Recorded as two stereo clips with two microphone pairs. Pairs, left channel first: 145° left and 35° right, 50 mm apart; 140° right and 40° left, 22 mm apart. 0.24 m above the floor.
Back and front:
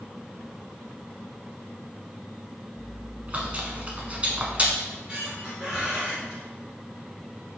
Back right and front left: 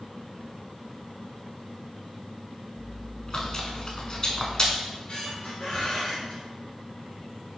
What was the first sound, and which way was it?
Chewing, 95° right.